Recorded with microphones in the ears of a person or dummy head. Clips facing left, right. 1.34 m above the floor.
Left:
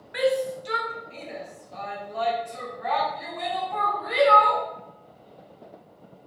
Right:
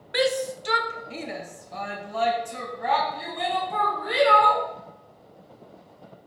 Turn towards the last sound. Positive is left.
turn(degrees=-45)  # may be behind; listen again after turning